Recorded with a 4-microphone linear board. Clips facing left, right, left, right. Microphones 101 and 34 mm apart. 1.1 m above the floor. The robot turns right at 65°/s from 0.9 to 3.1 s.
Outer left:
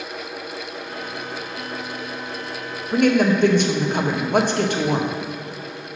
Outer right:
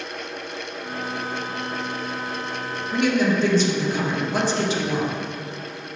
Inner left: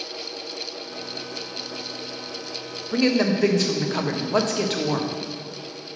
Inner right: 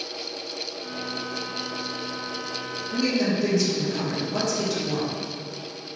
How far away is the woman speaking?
About 0.9 m.